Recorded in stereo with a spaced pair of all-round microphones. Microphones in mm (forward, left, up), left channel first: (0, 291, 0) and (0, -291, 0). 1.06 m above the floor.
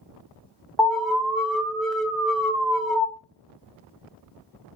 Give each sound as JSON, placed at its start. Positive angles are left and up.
{"t": 0.8, "sound": "an alarm", "side_deg": 0, "distance_m": 0.6}